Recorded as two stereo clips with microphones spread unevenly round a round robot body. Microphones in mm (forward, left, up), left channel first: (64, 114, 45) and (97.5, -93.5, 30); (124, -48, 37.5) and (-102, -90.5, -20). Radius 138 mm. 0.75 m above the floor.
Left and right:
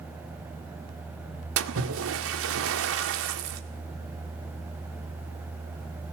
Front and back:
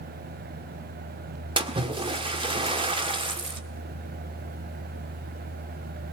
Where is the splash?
105° right, 1.8 m.